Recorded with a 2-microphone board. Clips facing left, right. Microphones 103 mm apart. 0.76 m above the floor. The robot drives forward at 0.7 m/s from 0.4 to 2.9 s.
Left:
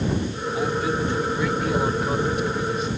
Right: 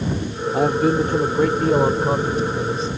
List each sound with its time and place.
0.5 s a man speaking: 55° right (ahead or behind); by 2.9 s 30° right (ahead or behind)